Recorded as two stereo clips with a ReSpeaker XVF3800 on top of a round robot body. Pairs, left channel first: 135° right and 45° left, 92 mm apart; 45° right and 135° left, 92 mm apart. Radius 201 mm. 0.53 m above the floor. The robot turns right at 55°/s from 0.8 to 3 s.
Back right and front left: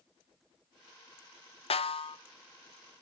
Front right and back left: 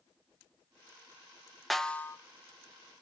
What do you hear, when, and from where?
1.7 s a snare drum: 135° right, 0.8 m; by 2.2 s 110° right, 0.8 m